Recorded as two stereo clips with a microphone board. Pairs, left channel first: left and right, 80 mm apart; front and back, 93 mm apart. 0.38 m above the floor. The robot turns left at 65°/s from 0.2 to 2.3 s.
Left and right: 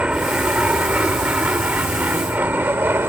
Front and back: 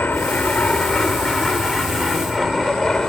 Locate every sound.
0.0 s an aircraft: 40° right; by 3.1 s 75° right